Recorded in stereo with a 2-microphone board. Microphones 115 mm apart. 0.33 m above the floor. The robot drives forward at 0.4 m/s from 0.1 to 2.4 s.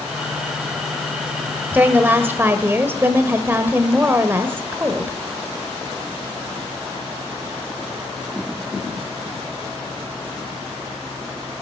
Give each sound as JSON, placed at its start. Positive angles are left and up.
{"t": 1.7, "sound": "a woman speaking", "side_deg": -20, "distance_m": 1.1}